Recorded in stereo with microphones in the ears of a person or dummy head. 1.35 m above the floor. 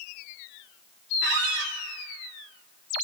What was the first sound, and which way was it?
A squeak, 55° right (ahead or behind).